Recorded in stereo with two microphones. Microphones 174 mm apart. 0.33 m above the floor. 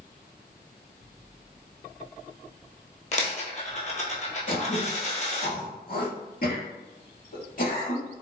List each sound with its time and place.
3.1 s a dropped coin: 45° left (ahead or behind), 0.9 m
4.5 s throat clearing: 55° left (ahead or behind), 1.0 m